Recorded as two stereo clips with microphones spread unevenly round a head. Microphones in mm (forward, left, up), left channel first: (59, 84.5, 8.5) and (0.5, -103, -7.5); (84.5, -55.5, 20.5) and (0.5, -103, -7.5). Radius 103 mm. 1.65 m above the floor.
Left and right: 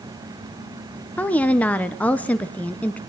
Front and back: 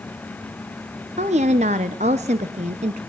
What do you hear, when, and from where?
1.2 s a woman speaking: 155° left, 0.9 m